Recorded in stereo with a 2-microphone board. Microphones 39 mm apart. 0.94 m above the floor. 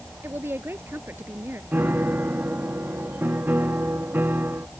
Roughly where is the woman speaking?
Right.